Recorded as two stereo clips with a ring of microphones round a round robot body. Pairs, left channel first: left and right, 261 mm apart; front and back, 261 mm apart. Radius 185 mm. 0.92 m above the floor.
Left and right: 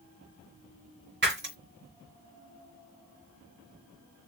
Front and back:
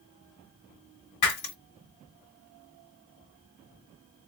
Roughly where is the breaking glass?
Ahead right.